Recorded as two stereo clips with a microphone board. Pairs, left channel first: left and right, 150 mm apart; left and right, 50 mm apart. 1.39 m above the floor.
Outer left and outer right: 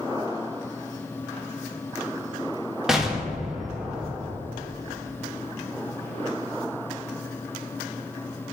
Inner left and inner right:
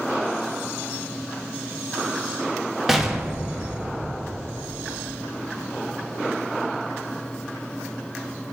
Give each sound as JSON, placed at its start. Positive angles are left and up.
{"t": 2.9, "sound": "an explosion", "side_deg": -5, "distance_m": 0.7}